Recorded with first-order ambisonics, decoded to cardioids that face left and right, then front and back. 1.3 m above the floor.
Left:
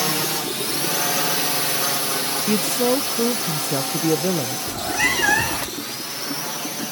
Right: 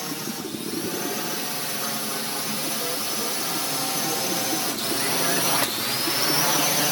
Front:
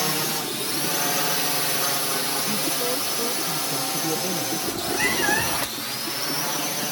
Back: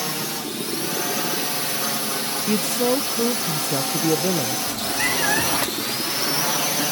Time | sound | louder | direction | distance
0.0 | a drone | left 9 dB, front 2 dB | 80° left | ?
2.5 | a woman speaking | left 8 dB, back 4 dB | 125° left | ?
4.7 | a cat meowing | left 5 dB, front 2 dB | 90° left | ?